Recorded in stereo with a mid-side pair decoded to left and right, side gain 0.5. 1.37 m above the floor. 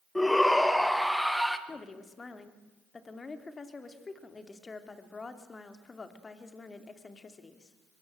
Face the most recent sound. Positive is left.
turn(degrees=30)